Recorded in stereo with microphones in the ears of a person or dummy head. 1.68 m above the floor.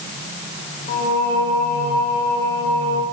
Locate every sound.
0.9 s singing: 40° left (ahead or behind), 4 m